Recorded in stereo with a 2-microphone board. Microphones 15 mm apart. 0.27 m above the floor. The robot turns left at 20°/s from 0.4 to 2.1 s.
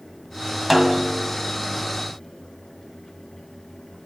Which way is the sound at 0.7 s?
15° right (ahead or behind).